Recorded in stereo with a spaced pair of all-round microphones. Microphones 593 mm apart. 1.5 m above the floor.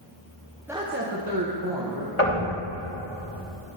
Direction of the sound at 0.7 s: 5° right (ahead or behind).